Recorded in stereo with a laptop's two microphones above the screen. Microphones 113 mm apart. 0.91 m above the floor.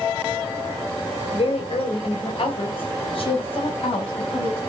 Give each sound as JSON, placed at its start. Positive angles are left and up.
{"t": 1.3, "sound": "a woman speaking", "side_deg": 60, "distance_m": 3.0}